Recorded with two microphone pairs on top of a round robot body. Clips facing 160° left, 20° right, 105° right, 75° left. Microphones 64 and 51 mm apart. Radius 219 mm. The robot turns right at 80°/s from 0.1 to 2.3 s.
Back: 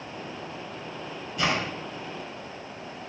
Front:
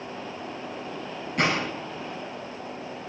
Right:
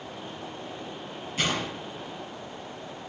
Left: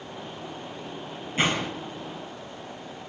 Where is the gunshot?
10° left, 6 m; by 1.7 s 35° left, 6 m.